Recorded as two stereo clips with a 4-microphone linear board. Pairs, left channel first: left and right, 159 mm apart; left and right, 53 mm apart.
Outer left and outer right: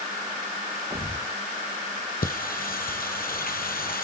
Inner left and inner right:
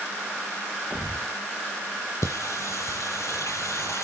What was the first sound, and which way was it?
A thud, 25° right (ahead or behind).